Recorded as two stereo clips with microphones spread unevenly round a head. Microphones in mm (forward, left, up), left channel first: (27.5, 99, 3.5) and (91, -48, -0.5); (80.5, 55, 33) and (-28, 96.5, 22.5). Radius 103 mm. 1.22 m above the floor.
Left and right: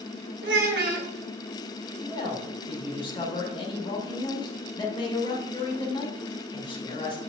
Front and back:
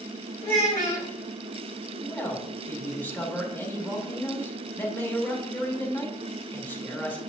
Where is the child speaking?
60° right, 2 m.